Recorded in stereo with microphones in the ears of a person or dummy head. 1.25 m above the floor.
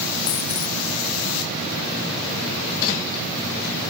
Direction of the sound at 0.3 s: 30° left (ahead or behind).